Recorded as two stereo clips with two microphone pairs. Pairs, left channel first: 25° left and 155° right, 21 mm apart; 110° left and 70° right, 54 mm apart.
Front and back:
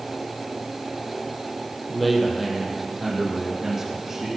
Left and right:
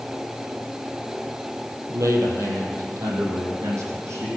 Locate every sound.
1.9 s a man speaking: 65° right, 3.5 m; by 4.4 s 90° right, 5 m